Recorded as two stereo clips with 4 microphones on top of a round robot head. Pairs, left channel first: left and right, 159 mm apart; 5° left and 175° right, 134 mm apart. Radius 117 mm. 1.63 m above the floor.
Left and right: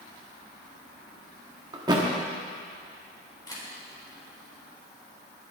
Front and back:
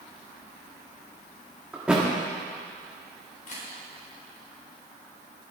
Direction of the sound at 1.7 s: 100° right.